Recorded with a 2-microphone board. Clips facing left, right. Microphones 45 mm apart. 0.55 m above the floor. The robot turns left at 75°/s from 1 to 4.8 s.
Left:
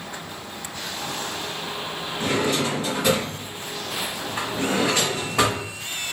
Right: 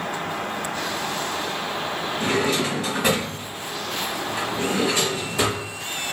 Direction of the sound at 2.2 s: 50° right (ahead or behind).